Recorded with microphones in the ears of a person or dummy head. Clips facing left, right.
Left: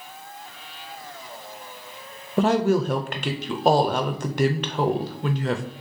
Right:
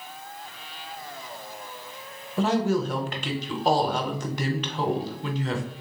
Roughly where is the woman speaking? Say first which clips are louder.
Left 4 dB; left.